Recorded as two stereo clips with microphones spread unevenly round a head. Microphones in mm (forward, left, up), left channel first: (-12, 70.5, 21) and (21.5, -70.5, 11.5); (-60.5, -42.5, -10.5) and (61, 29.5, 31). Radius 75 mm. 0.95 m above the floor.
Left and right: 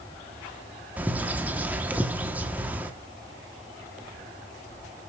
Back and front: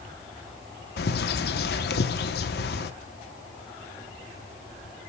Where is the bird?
155° right, 1.2 m.